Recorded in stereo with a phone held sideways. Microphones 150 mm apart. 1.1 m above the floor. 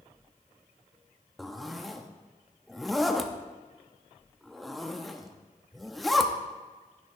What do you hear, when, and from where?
1.4 s a zipper: centre (ahead or behind), 0.7 m